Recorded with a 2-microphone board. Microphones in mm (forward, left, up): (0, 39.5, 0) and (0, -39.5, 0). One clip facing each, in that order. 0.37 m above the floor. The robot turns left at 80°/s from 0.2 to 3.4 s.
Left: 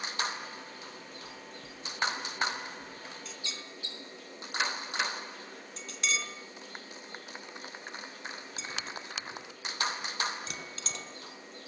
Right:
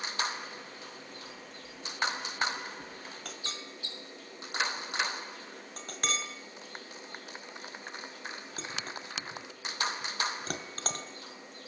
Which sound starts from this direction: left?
Knocking, at 1.2 s.